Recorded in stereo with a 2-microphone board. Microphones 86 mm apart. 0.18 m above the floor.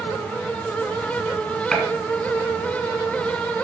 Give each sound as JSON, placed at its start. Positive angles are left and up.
{"t": 1.7, "sound": "a gunshot", "side_deg": 5, "distance_m": 2.0}